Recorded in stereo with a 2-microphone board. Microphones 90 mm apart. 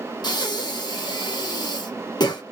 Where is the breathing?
50° left (ahead or behind), 0.9 m.